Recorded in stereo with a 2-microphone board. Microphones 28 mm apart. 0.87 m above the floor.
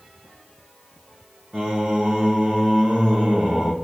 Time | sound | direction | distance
1.5 | singing | 50° right (ahead or behind) | 2.5 m